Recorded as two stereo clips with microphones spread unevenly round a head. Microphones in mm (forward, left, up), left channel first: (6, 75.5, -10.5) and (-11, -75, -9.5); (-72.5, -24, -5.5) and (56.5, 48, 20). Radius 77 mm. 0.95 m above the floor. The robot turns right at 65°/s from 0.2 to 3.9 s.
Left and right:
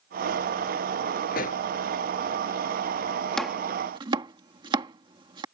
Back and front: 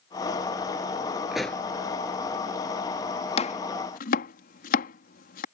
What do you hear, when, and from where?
1.3 s a pop: 110° left; by 1.6 s 135° left
3.4 s chopping: 170° left; by 5.5 s 155° right